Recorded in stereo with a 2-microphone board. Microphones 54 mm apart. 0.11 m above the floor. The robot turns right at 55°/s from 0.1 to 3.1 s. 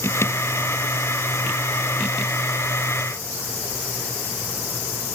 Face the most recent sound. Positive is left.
No sound to turn to.